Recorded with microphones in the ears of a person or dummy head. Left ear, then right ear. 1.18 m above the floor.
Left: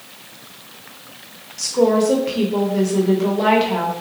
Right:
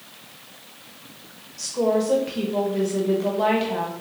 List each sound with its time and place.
1.6 s a woman speaking: 10° left (ahead or behind), 0.8 m